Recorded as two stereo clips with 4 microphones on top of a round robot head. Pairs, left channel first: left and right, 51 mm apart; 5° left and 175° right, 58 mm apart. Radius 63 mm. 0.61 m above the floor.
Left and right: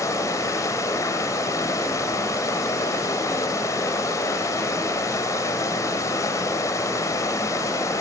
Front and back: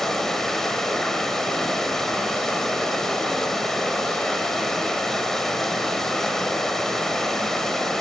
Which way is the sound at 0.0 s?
85° left.